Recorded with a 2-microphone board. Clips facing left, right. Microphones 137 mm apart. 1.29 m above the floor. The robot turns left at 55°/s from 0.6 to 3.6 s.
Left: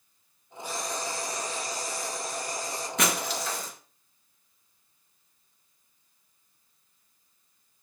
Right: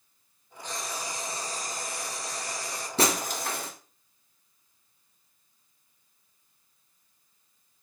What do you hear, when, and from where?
0.6 s frying: 10° left, 2 m; by 2.9 s 115° right, 2 m
3.0 s breaking glass: 35° right, 2.0 m; by 3.7 s 65° right, 2.0 m